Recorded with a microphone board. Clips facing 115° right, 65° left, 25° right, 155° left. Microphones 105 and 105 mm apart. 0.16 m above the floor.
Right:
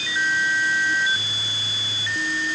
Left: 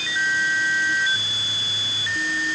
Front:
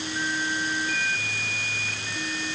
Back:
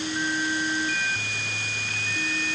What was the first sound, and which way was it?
Only background noise.